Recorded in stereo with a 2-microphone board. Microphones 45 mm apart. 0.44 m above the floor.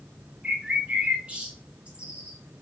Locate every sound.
0.4 s a bird: 25° right (ahead or behind), 1.1 m